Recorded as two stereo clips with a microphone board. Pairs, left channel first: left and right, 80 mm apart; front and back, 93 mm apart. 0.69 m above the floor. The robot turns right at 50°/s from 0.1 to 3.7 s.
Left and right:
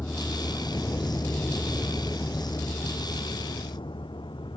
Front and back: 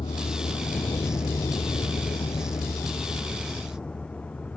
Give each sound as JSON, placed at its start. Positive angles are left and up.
{"t": 0.0, "sound": "a vehicle", "azimuth_deg": 25}